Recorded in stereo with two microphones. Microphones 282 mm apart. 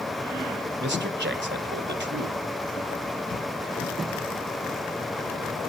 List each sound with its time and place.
0.8 s a man speaking: 40° right (ahead or behind), 2 m